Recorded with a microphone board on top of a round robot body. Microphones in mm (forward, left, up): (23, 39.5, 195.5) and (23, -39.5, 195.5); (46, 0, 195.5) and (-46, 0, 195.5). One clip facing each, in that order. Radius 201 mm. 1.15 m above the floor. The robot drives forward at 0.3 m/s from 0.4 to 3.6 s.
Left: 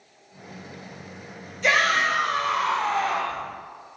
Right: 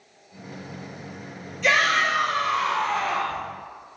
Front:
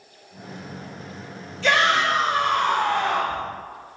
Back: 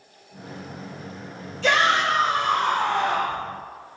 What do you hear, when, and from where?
1.6 s a shout: 155° left, 1.8 m; by 3.4 s 160° left, 2 m